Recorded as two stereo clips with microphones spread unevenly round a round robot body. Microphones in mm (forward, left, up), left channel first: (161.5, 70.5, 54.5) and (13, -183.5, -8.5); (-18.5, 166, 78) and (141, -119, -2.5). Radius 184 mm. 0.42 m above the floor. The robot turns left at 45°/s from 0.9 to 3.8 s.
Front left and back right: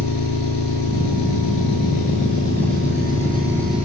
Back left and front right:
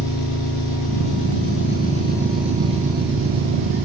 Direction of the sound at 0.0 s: 95° left.